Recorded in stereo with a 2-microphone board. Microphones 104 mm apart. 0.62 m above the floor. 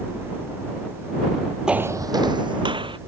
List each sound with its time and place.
1.7 s footsteps: 10° right (ahead or behind); by 3.0 s 55° right (ahead or behind)